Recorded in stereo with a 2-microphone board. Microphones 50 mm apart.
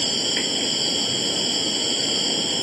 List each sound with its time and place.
0.0 s an insect: centre (ahead or behind)